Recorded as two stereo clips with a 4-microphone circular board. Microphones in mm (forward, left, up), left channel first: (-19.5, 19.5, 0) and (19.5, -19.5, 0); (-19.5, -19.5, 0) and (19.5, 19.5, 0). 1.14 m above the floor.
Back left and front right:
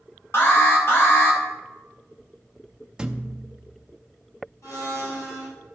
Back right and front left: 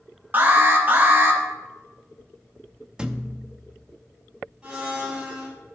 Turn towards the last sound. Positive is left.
turn(degrees=125)